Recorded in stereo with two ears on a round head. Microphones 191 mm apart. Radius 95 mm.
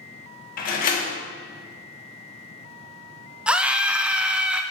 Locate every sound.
0.6 s a door slam: 45° left (ahead or behind), 1.4 m
3.5 s a scream: 5° right (ahead or behind), 0.6 m